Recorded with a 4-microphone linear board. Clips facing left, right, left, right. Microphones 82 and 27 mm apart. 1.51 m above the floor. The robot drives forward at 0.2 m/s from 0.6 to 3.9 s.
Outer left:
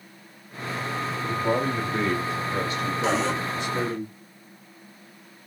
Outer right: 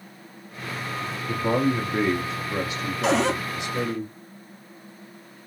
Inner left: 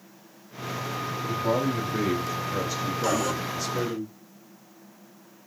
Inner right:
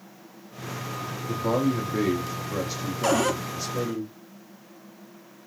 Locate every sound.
1.3 s a man speaking: 25° right (ahead or behind), 0.5 m; by 4.0 s 15° right (ahead or behind), 1.0 m
3.0 s a cupboard door: 75° right (ahead or behind), 0.6 m; by 3.4 s 65° right (ahead or behind), 0.6 m